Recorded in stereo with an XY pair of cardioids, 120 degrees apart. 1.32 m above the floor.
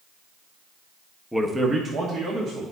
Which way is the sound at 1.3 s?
Straight ahead.